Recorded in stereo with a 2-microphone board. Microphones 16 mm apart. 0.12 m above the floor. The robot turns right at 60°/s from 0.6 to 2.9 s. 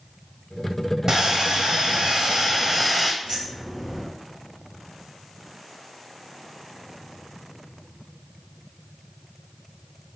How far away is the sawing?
About 1.2 m.